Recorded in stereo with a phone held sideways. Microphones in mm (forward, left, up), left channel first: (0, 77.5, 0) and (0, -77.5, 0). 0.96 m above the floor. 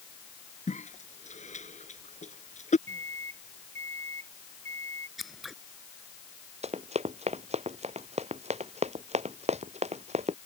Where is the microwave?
45° right (ahead or behind).